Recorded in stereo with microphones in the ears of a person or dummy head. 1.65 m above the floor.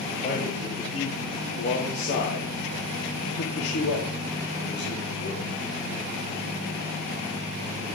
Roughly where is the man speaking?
Left.